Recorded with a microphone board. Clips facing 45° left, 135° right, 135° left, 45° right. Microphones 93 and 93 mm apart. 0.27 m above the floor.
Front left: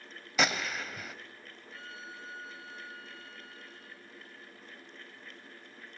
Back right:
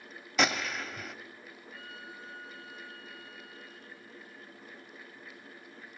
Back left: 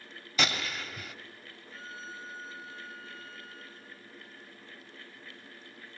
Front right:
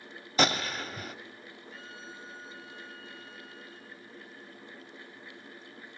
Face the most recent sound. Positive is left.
turn(degrees=95)